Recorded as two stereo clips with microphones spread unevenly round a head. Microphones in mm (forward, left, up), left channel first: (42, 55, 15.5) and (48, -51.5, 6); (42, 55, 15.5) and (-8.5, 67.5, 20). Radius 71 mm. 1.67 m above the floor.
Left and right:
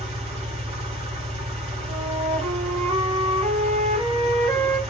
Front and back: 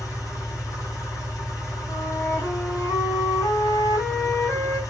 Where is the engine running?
55° right, 3.5 m.